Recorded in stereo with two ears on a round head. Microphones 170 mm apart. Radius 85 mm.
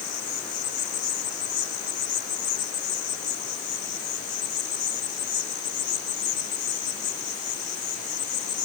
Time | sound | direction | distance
0.0 | an insect | 40° left (ahead or behind) | ?